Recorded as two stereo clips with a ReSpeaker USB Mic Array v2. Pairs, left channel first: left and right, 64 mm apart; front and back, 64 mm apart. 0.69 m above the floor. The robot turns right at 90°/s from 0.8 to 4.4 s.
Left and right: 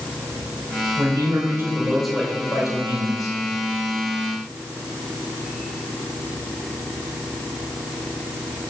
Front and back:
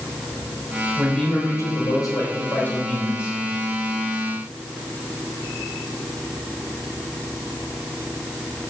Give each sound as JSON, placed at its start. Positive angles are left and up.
{"t": 1.0, "sound": "a man speaking", "azimuth_deg": -95, "distance_m": 2.5}